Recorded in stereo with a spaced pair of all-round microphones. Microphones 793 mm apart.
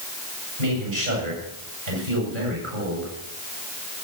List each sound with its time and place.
0.6 s a man speaking: 90° right, 8 m